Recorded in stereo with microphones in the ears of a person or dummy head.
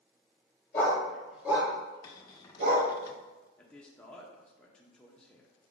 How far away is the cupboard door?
About 0.5 m.